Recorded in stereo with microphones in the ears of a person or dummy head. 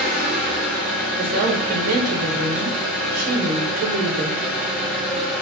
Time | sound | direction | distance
0.0 | an engine running | 10° left (ahead or behind) | 1.9 m
1.2 | a woman speaking | 50° right (ahead or behind) | 0.8 m